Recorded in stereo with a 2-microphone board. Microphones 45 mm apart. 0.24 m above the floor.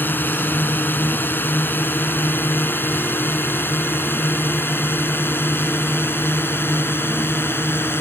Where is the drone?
45° left (ahead or behind); by 8.0 s 55° left (ahead or behind).